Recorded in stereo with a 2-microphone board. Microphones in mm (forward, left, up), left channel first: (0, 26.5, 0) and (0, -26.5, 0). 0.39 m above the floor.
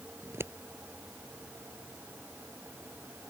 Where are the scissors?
55° right (ahead or behind).